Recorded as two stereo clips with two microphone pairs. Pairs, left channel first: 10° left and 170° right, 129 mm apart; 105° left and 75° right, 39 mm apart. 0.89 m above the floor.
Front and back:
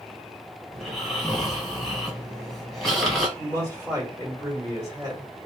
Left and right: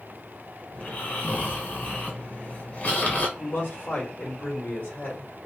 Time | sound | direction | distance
0.7 | snoring | 95° left | 0.9 m
3.4 | a man speaking | 125° left | 1.3 m